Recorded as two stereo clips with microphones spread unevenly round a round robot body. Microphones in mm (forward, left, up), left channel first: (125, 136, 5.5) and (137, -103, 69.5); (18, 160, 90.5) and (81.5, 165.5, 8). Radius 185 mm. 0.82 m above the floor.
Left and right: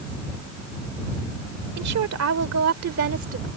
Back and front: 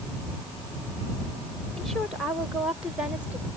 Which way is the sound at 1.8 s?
75° right.